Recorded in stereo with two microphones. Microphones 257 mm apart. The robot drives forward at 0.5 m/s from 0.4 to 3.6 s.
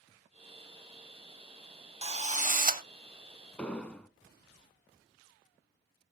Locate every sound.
2.0 s a drill: 25° right (ahead or behind), 0.7 m; by 2.8 s 35° right (ahead or behind), 0.5 m
3.6 s an explosion: 5° left (ahead or behind), 0.5 m